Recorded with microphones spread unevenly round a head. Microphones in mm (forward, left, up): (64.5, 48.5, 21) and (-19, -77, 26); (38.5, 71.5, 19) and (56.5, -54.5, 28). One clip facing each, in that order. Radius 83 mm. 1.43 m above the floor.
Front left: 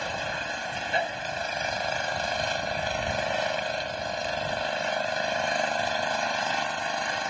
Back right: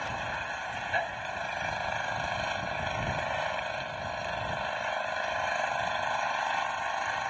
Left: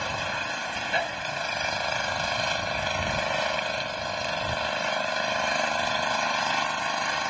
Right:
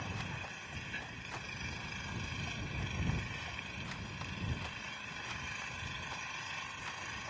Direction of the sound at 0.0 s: 110° left.